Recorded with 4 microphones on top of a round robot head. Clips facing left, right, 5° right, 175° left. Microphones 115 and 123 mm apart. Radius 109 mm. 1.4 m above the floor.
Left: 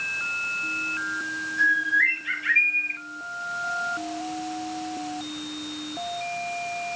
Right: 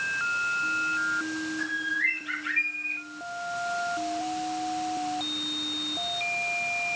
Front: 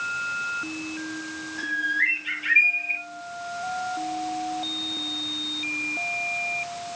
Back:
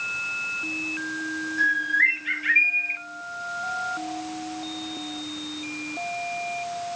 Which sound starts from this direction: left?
A bird, at 1.6 s.